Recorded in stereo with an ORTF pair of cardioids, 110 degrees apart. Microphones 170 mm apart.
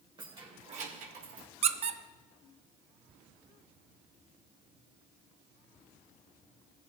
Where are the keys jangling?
30° right, 2.5 m; by 1.5 s 70° right, 2 m.